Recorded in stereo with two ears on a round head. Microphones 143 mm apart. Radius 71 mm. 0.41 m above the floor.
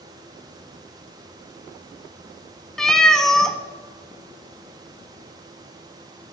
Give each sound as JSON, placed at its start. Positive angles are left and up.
{"t": 2.8, "sound": "a cat meowing", "side_deg": 5, "distance_m": 0.9}